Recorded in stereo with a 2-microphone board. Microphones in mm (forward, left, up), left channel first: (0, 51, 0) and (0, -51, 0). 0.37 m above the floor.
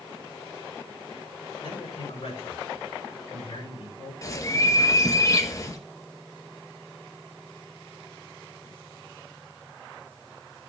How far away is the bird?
About 1.2 m.